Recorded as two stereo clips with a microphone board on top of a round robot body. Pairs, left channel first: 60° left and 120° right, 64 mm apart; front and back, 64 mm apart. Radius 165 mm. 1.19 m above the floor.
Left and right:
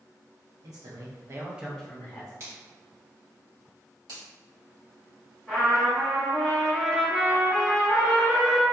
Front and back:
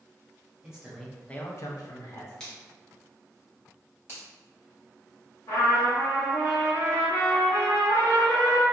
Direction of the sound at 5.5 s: 25° right.